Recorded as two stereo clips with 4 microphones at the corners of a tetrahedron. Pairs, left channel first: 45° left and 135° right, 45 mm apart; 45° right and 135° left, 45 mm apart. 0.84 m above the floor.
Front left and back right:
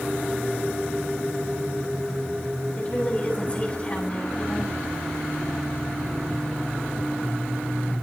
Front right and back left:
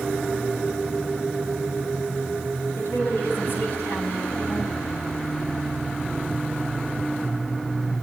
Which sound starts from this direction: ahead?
A woman speaking, at 2.8 s.